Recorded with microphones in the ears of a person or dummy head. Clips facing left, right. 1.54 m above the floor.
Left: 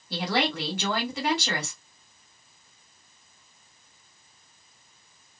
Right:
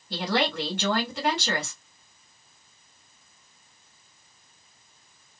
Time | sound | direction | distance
0.1 | a woman speaking | centre (ahead or behind) | 2.5 m